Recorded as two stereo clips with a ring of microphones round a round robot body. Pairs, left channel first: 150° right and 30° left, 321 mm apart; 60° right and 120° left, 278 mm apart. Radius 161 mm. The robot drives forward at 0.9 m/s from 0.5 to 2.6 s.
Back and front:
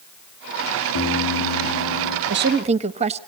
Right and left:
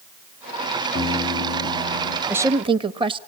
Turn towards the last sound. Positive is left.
turn(degrees=70)